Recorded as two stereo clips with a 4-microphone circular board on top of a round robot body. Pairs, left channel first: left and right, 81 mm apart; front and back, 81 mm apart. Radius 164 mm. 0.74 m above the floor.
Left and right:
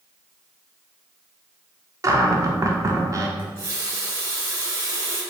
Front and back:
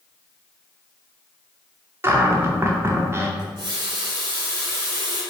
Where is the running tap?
145° right, 1.9 m.